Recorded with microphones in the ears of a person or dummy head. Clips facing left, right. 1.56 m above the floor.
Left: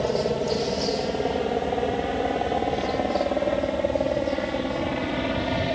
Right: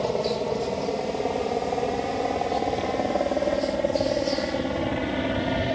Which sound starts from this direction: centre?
A helicopter, at 0.0 s.